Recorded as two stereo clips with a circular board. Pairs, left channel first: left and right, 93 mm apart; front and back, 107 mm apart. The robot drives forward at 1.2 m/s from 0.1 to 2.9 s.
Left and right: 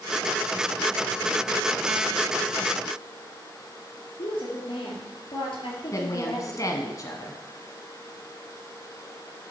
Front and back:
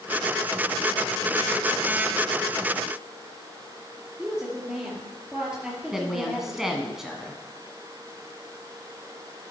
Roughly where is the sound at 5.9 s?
Left.